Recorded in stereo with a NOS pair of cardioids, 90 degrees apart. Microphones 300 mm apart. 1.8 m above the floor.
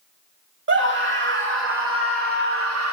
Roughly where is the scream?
Ahead right.